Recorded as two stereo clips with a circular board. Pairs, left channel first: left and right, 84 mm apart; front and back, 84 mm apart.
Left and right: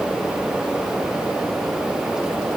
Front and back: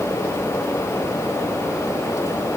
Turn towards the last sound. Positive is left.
No sound to turn to.